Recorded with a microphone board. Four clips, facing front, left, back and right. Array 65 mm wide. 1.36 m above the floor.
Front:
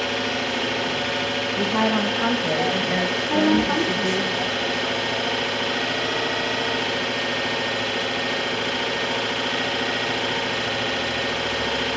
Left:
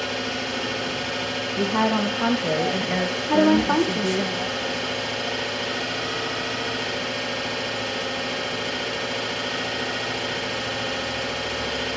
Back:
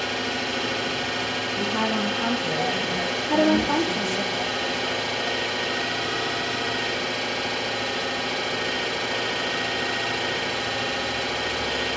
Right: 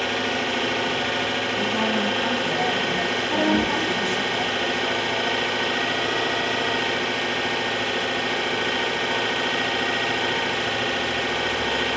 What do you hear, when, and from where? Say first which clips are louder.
0.0 s an engine running: right 3 dB, front 3 dB; 50° right, 0.8 m
1.6 s a woman speaking: left 4 dB, front 4 dB; 50° left, 0.7 m
3.3 s a woman speaking: left 5 dB, even; 95° left, 0.8 m